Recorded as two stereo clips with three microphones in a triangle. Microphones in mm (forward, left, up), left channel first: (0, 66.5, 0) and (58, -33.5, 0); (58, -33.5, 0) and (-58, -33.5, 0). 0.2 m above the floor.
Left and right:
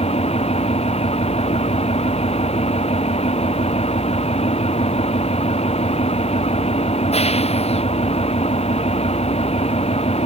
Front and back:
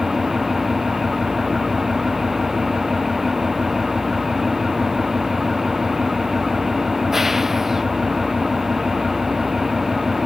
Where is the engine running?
90° left.